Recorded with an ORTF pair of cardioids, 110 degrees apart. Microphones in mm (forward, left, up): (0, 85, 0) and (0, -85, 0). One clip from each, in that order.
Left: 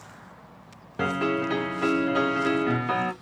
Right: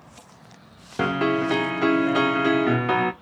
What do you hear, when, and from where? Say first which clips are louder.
1.0 s a piano: right 3 dB; 25° right, 0.6 m